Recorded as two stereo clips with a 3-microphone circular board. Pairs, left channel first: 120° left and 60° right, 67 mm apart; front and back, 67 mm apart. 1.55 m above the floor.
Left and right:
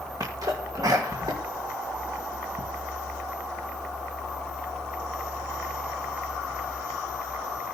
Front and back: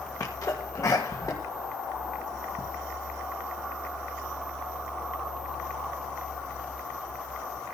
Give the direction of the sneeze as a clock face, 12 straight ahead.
1 o'clock.